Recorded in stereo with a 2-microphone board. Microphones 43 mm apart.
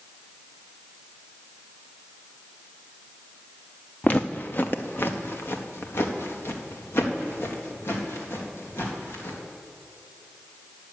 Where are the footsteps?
35° left (ahead or behind), 0.6 m; by 9.4 s 75° left (ahead or behind), 3.5 m.